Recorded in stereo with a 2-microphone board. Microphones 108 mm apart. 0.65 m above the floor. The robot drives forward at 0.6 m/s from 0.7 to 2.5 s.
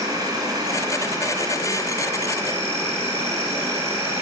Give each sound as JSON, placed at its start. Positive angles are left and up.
{"t": 0.0, "sound": "an insect", "side_deg": -35, "distance_m": 3.5}